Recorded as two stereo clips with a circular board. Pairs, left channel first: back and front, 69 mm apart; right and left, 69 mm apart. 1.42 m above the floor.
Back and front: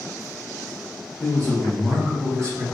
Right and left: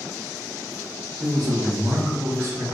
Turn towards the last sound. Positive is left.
turn(degrees=35)